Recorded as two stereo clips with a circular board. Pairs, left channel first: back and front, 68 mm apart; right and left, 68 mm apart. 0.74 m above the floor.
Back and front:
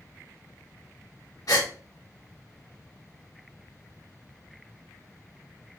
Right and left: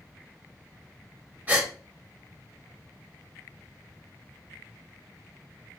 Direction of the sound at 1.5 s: 155° left.